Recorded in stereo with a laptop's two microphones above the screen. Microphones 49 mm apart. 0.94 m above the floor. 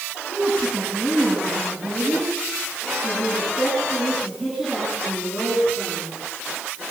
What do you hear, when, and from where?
0.3 s a woman speaking: 35° right (ahead or behind), 8 m; by 6.1 s 20° right (ahead or behind), 10.5 m